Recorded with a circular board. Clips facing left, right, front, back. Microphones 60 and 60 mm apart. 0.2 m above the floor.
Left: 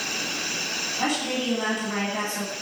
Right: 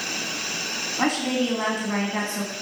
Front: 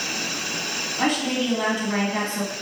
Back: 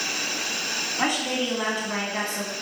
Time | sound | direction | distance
1.0 | a woman speaking | 100° right | 1.8 m